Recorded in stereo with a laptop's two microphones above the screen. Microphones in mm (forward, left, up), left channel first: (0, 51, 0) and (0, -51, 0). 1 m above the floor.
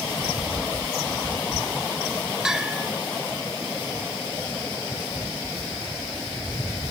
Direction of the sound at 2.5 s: 5° right (ahead or behind).